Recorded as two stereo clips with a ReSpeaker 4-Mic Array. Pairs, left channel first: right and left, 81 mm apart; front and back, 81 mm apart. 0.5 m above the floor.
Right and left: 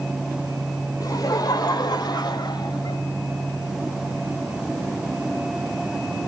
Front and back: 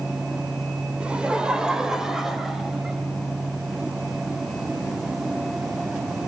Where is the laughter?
110° right, 1.8 m; by 3.0 s 90° right, 3 m.